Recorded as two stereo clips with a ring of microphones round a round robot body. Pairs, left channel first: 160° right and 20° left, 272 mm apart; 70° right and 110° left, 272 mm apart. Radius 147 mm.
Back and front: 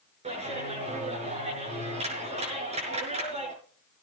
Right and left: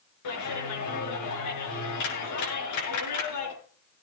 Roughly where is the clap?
Ahead right.